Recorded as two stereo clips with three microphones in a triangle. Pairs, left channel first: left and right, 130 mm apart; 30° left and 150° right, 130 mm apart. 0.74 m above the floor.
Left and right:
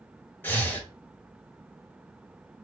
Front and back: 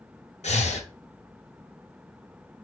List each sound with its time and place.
0.4 s breathing: 20° left, 0.6 m